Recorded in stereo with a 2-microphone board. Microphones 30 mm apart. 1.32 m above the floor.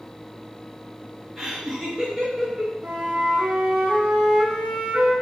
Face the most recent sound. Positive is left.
turn(degrees=-65)  # may be behind; listen again after turning